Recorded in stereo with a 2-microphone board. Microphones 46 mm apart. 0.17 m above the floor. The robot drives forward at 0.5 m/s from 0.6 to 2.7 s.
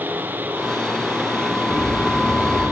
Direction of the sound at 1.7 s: 80° left.